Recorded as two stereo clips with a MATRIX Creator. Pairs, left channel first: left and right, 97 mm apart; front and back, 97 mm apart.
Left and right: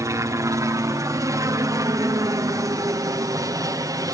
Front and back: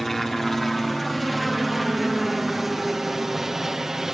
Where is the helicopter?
85° right; by 4.2 s 95° right.